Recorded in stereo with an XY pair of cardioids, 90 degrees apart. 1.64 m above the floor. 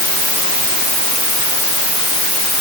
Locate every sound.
Only background noise.